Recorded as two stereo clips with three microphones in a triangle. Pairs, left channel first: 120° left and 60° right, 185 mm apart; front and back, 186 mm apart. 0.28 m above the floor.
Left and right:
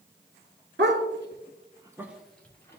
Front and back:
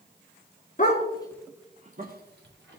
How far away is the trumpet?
No trumpet in this recording.